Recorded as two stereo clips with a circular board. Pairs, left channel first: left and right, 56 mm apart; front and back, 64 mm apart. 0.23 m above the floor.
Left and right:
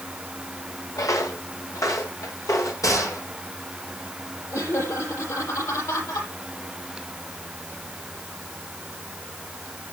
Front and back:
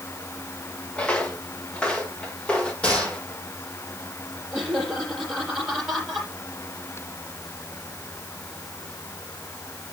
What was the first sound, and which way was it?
Footsteps, 70° left.